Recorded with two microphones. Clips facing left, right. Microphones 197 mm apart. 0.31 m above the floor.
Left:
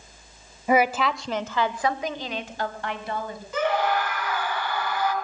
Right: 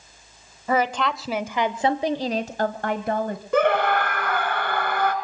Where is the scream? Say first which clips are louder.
Right 4 dB; 60° right (ahead or behind), 3.5 m.